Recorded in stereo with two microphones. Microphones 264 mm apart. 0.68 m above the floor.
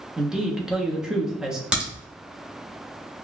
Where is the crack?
5° right (ahead or behind), 1.5 m.